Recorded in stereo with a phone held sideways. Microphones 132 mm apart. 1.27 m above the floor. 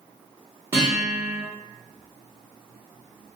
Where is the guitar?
20° right (ahead or behind), 1.1 m.